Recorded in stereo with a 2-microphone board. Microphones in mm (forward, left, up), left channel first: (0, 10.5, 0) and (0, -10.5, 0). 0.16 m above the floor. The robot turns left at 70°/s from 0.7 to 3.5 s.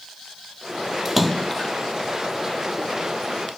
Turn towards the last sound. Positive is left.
turn(degrees=25)